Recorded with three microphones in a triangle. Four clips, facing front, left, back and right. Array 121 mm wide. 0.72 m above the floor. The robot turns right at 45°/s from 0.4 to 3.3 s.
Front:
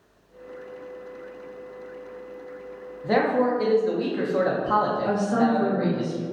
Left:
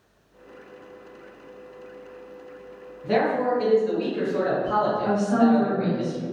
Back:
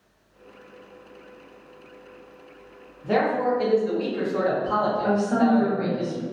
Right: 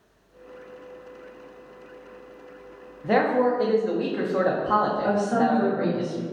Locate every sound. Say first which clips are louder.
3.0 s a man speaking: right 1 dB, front 1 dB; 75° right, 0.5 m; by 6.0 s 60° right, 0.5 m
5.0 s a woman speaking: left 2 dB, back 1 dB; 160° right, 1.4 m